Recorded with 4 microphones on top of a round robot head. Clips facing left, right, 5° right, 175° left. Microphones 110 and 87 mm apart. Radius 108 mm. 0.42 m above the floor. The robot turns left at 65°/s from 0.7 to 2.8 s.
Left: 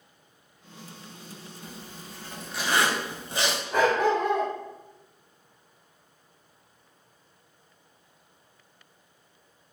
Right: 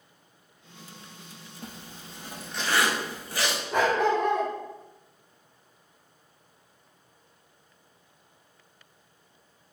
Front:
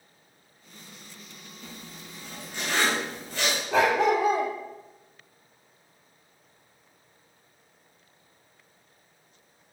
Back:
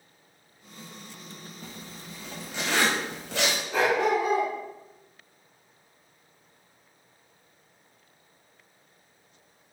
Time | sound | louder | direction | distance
1.6 | a zipper | even, front 1 dB | 125° right | 0.6 m
3.7 | a dog barking | left 1 dB, front 2 dB | straight ahead | 0.7 m